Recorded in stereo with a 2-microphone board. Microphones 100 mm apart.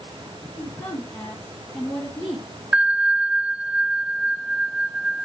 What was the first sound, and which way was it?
A woman speaking, 25° left (ahead or behind).